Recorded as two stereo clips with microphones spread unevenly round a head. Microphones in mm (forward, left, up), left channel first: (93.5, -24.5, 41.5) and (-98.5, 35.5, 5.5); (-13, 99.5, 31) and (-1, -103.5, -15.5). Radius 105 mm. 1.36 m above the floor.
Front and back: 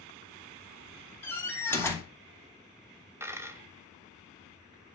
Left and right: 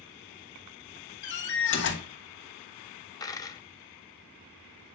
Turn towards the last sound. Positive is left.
turn(degrees=80)